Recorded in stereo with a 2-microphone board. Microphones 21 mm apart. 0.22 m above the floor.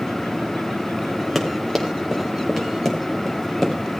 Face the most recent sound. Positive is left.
turn(degrees=15)  # may be behind; listen again after turning